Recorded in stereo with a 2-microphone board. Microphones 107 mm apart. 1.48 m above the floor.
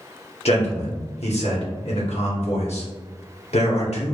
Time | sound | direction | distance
0.5 | a man speaking | 85° left | 1.2 m